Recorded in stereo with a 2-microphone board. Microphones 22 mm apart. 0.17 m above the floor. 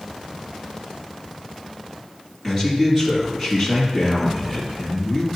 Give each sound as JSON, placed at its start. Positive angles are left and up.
{"t": 2.4, "sound": "a man speaking", "side_deg": 10, "distance_m": 2.5}